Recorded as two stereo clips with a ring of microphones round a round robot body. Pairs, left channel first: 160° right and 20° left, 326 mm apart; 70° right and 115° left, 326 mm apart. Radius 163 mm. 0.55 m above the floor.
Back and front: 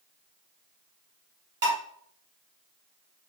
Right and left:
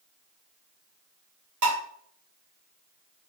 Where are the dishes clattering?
80° left, 1.6 m.